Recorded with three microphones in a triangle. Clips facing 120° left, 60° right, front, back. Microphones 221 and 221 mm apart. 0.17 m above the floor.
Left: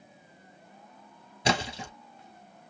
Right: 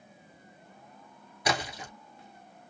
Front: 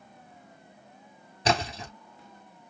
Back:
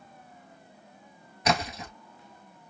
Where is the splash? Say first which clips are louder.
Left 3 dB, front 1 dB; 55° left, 1.3 m.